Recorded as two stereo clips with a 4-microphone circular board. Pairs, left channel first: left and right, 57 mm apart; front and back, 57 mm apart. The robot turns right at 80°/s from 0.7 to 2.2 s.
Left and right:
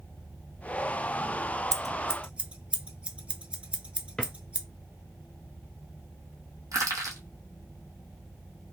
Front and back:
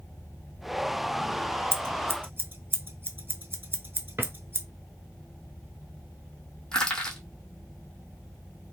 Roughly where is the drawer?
Behind.